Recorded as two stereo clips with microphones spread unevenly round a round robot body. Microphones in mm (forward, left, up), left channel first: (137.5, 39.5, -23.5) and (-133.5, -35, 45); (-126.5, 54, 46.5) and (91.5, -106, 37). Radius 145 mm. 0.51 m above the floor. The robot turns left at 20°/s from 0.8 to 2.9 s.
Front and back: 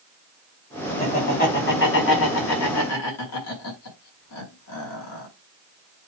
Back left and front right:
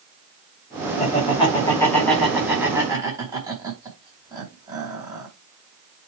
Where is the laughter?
80° left, 5 m; by 5.3 s 40° left, 5 m.